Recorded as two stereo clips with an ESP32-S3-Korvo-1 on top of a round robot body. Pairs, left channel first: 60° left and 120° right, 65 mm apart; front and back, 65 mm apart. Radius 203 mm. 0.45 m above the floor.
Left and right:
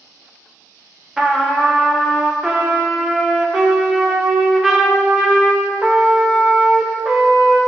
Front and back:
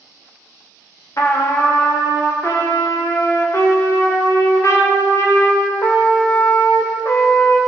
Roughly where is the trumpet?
Ahead right.